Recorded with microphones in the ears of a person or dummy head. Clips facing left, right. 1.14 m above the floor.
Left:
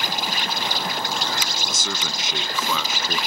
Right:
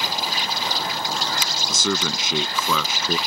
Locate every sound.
0.0 s an insect: 50° left (ahead or behind)
1.7 s a man speaking: 75° right (ahead or behind)